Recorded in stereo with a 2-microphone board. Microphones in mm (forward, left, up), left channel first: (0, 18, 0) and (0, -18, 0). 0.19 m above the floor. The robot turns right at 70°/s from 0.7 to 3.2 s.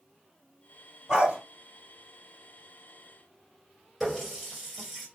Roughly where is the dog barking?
Centre.